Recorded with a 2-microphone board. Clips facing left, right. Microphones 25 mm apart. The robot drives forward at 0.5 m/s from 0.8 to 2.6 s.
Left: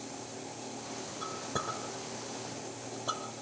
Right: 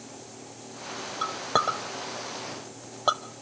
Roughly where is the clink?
Right.